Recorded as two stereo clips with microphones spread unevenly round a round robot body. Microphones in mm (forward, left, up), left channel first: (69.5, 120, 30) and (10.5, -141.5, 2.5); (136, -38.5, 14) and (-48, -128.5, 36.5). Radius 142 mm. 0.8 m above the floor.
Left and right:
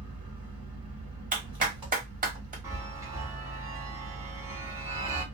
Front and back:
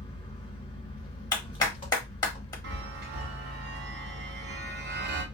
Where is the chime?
175° right, 0.6 m.